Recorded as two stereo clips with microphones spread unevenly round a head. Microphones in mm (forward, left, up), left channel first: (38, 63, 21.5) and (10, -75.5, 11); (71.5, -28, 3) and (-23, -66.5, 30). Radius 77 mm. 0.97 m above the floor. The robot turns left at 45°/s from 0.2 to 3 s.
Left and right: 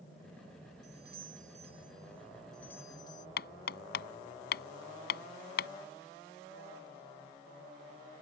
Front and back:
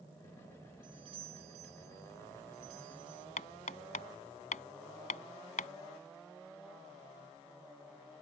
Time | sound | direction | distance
0.8 | a doorbell | 120° right | ?
3.4 | hammering | 70° left | ?